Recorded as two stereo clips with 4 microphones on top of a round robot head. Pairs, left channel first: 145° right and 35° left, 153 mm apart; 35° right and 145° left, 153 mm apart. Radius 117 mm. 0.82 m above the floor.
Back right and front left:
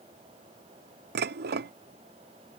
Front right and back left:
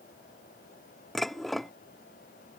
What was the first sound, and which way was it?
Dishes clattering, 50° left.